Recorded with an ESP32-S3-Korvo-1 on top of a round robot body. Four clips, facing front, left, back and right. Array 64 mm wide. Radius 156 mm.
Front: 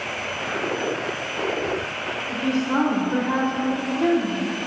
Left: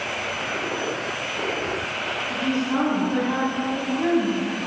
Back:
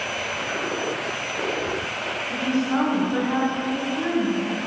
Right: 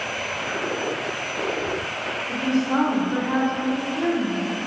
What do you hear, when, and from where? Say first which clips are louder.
2.3 s a woman speaking: right 3 dB, front 1 dB; 35° right, 3 m; by 4.5 s 15° right, 5 m